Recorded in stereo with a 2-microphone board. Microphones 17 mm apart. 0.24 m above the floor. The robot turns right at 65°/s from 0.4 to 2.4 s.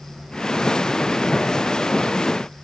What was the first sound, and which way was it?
Only background noise.